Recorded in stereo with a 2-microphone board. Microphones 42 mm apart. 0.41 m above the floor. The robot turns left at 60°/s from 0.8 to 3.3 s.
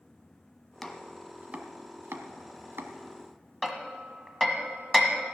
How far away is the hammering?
About 1.3 m.